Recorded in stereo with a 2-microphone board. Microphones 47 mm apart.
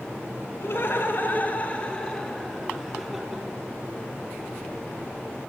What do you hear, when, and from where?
0.6 s laughter: 50° left (ahead or behind), 2 m; by 3.5 s 10° right (ahead or behind), 3 m